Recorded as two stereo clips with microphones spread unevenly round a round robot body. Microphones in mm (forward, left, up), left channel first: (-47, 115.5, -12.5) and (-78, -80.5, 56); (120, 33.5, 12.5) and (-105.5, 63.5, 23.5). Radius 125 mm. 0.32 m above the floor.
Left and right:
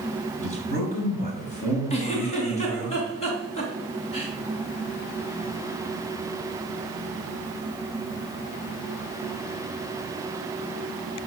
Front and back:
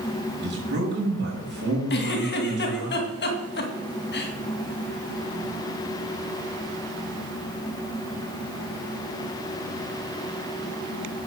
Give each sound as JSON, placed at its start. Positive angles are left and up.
{"t": 0.4, "sound": "a man speaking", "azimuth_deg": 130, "distance_m": 6.0}
{"t": 1.9, "sound": "a giggle", "azimuth_deg": 30, "distance_m": 2.0}